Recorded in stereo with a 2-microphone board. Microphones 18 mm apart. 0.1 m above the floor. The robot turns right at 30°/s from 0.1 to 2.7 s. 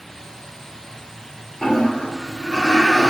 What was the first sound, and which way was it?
A toilet flushing, 60° left.